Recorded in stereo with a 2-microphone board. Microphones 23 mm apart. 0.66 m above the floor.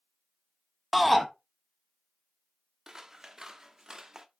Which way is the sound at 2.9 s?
20° right (ahead or behind).